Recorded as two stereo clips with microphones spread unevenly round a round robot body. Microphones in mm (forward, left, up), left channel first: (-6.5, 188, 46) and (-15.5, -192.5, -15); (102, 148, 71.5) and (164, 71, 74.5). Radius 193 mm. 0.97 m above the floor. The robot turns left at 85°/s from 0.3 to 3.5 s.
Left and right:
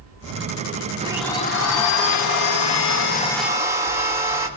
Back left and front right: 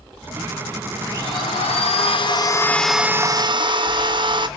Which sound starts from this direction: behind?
A blender, at 1.0 s.